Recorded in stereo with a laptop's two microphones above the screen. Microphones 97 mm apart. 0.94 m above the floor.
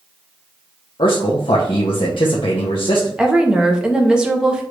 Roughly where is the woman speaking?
Centre.